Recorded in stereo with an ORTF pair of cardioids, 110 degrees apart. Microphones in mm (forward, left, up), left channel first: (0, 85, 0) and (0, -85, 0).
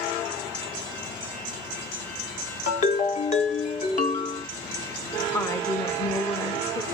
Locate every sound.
2.7 s a ringtone: 45° left, 0.9 m
5.3 s a woman speaking: 15° left, 0.7 m